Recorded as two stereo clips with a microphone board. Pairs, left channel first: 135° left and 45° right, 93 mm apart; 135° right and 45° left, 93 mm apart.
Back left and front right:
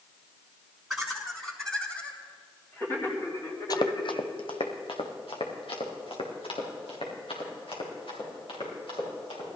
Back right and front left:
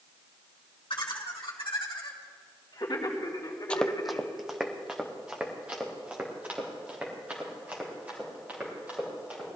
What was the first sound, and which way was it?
Laughter, 125° right.